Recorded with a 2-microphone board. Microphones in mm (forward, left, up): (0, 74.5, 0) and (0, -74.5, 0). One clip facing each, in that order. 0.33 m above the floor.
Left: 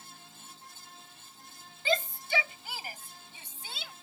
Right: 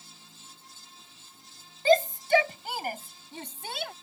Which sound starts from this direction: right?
A shout, at 1.9 s.